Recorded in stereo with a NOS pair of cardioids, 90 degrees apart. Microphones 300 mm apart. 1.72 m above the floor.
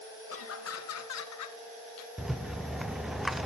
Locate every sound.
0.3 s laughter: 50° left, 2.5 m; by 1.6 s 75° left, 1.9 m
2.2 s a rattle: straight ahead, 0.9 m